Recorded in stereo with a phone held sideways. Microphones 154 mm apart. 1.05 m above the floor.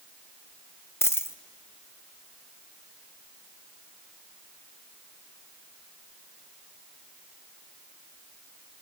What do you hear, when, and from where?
1.0 s a dropped coin: 15° left (ahead or behind), 0.6 m